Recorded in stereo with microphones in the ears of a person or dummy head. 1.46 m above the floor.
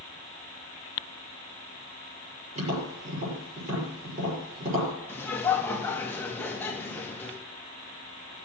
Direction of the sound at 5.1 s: 10° left (ahead or behind).